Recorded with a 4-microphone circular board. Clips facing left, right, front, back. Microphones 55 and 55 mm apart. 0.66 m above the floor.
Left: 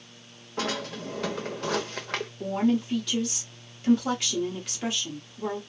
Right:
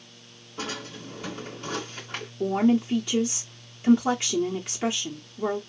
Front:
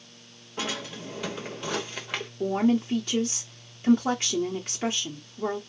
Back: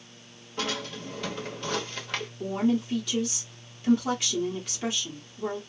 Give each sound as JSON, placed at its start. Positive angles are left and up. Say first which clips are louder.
{"t": 0.6, "sound": "a drawer", "louder": "left 4 dB, back 1 dB", "azimuth_deg": 80, "distance_m": 0.8}
{"t": 2.4, "sound": "a woman speaking", "louder": "right 4 dB, front 3 dB", "azimuth_deg": -35, "distance_m": 0.6}